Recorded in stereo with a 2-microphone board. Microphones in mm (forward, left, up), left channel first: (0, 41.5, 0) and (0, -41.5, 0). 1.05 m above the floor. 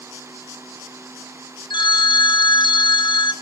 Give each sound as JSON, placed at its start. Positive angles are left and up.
{"t": 1.7, "sound": "a phone ringing", "side_deg": 75, "distance_m": 1.3}